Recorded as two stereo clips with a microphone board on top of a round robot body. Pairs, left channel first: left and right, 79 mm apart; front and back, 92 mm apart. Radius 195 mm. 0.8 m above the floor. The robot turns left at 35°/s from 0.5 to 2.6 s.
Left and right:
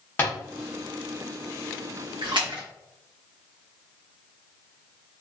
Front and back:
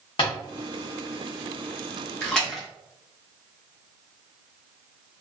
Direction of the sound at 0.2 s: 25° left.